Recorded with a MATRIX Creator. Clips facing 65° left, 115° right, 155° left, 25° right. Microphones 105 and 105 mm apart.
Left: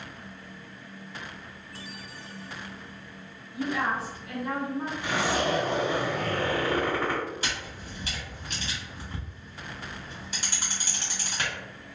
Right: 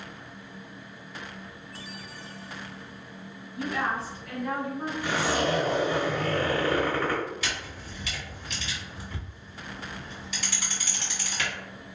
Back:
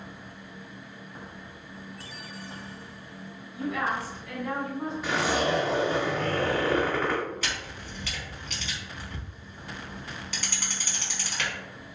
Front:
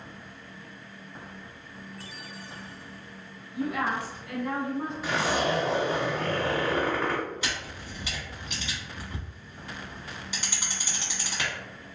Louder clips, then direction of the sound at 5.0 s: Right 1 dB, back 1 dB; 65° left.